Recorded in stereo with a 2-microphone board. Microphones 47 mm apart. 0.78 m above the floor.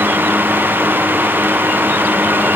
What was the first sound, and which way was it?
Only background noise.